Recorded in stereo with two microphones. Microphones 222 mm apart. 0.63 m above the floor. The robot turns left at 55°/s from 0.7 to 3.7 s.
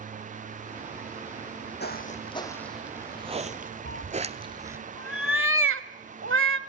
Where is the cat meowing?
70° right (ahead or behind), 0.8 m.